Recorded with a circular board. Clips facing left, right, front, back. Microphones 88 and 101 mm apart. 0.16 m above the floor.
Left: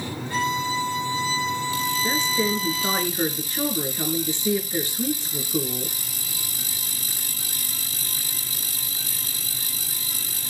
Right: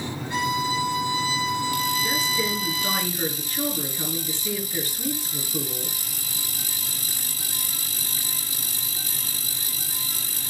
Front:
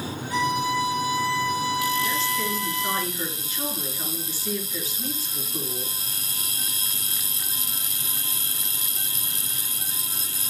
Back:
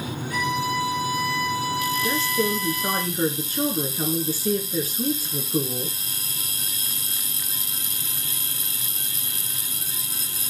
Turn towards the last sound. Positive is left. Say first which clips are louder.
# left 2 dB, back 3 dB
turn(degrees=150)